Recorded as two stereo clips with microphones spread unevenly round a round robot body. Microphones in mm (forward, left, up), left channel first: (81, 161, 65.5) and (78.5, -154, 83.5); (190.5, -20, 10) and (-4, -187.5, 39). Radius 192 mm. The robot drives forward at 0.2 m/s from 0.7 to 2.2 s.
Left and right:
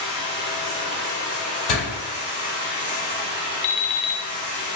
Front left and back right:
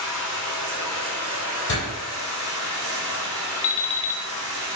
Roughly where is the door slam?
Left.